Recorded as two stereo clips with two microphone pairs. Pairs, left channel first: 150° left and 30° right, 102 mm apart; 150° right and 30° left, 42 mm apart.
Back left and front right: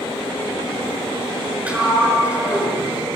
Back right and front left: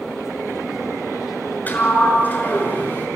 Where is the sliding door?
110° right, 6 m.